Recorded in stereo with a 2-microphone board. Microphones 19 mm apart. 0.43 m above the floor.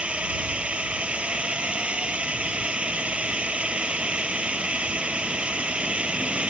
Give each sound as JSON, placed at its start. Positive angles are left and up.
{"t": 0.0, "sound": "a drone", "side_deg": -75}